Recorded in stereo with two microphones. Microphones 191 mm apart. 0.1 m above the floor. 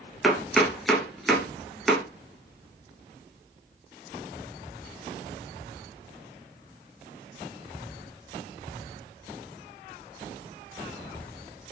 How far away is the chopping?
About 1.1 m.